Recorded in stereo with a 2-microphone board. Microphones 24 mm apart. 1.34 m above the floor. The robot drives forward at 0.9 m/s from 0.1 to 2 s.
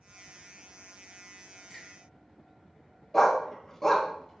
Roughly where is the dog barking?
Centre.